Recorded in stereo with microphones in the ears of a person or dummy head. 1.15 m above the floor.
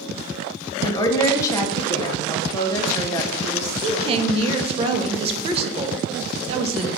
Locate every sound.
0.8 s a woman speaking: 20° left (ahead or behind), 0.6 m
3.8 s a woman speaking: 35° right (ahead or behind), 0.5 m